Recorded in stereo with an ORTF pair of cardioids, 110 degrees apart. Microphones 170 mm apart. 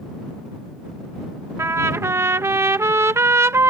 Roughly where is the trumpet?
Ahead.